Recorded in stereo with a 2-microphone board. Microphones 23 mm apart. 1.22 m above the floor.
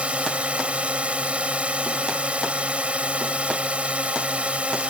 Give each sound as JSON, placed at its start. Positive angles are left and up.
{"t": 0.0, "sound": "a drone", "side_deg": -60}